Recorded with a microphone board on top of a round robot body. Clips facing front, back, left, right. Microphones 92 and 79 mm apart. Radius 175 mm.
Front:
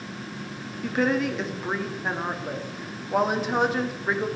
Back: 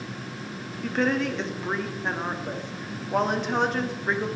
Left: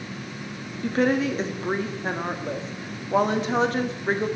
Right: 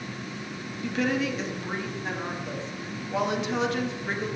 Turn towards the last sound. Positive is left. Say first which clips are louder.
# front 1 dB, left 5 dB
turn(degrees=85)